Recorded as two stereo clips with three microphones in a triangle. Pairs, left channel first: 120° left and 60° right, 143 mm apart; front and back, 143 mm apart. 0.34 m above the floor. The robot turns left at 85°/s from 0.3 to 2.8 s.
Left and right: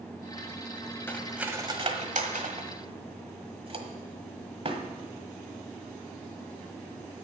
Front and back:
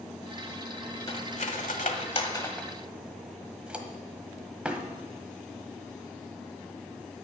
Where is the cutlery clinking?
50° left, 1.3 m; by 4.8 s 100° right, 1.3 m.